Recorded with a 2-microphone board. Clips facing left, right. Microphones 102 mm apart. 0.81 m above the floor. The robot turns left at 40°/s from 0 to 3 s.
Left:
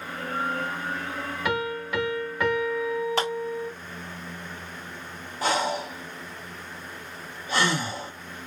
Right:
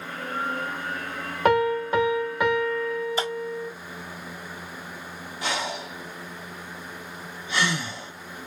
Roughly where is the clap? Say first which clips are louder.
Left 2 dB; left.